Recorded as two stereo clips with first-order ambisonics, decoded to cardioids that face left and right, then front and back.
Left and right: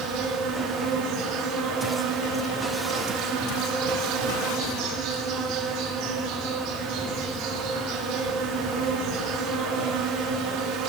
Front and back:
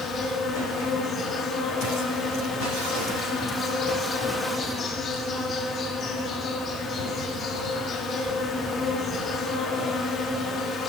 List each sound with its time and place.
0.0 s an insect: 60° right, 2.5 m